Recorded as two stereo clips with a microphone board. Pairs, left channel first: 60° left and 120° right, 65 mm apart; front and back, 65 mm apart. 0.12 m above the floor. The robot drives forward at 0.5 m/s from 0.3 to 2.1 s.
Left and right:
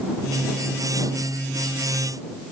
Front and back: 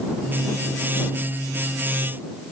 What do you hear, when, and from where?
Only background noise.